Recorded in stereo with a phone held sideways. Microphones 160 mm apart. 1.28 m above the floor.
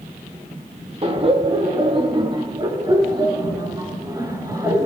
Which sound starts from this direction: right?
Laughter, at 1.0 s.